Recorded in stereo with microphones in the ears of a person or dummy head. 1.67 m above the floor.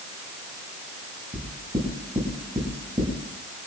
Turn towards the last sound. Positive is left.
turn(degrees=-30)  # may be behind; listen again after turning